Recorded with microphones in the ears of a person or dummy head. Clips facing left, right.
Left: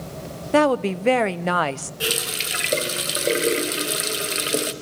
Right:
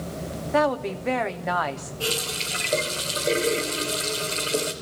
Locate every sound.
0.5 s a woman speaking: 50° left (ahead or behind), 0.7 m
2.0 s a running tap: 20° left (ahead or behind), 1.1 m